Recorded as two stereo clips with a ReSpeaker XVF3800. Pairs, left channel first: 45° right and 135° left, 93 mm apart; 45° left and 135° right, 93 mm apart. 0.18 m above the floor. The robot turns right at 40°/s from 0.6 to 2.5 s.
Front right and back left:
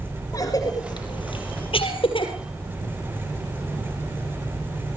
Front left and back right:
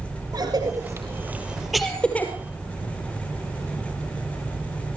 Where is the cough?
90° right, 4.5 m; by 2.3 s 25° right, 4.5 m.